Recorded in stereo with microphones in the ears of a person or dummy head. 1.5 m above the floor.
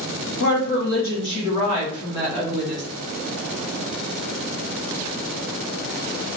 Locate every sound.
0.4 s a woman speaking: 75° left (ahead or behind), 2 m; by 2.8 s 25° left (ahead or behind), 2.5 m